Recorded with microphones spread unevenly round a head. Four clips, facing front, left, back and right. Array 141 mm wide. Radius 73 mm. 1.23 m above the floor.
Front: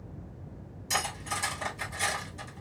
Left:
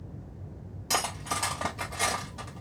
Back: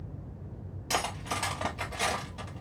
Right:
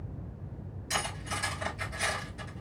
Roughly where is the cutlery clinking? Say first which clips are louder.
Left 4 dB, back 1 dB; behind left.